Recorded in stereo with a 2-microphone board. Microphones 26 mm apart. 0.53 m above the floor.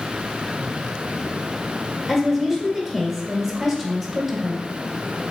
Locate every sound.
2.1 s a woman speaking: 5° left (ahead or behind), 1.4 m